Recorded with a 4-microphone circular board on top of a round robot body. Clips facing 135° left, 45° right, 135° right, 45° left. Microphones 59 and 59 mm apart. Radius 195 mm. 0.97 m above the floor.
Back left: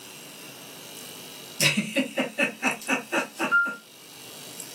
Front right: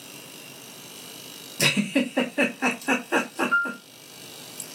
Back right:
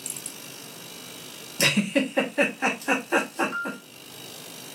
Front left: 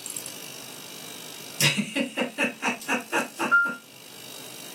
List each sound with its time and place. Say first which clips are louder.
1.6 s a giggle: front right 2 dB, back right 3 dB; 90° right, 0.9 m
3.5 s a piano: back left 2 dB, front left 10 dB; 40° left, 0.5 m